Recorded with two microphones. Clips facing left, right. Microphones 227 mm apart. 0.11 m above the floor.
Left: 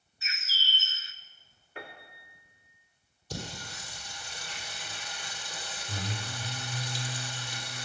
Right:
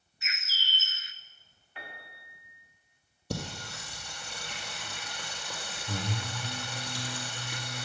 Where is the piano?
45° left (ahead or behind), 2.5 m.